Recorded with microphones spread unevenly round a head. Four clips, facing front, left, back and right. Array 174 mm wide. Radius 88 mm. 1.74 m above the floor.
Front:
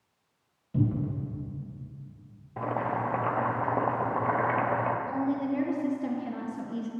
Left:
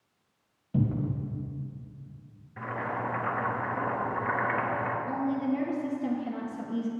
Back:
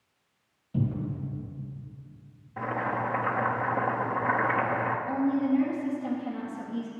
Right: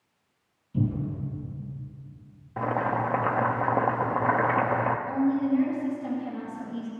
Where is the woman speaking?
30° left, 1.7 m.